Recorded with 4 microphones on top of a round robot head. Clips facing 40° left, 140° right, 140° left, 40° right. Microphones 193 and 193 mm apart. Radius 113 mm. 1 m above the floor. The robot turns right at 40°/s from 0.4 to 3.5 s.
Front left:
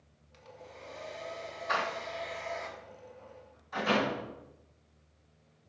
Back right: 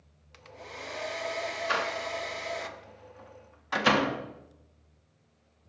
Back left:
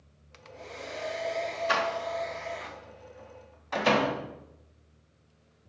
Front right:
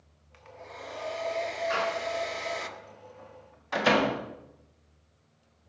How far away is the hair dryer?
About 0.7 m.